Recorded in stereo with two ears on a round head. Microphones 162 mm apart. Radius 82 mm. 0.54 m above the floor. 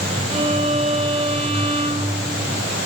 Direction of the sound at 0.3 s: 35° right (ahead or behind).